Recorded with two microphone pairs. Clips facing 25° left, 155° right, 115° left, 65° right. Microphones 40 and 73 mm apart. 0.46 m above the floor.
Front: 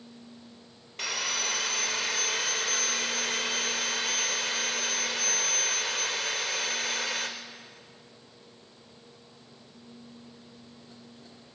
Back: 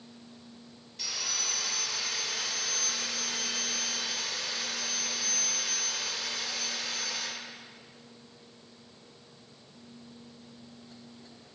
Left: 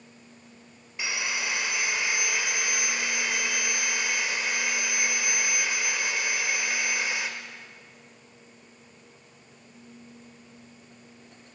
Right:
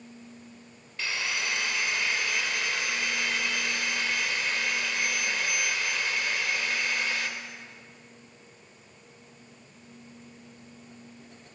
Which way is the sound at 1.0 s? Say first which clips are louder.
Front 5 dB, left 1 dB; 45° left.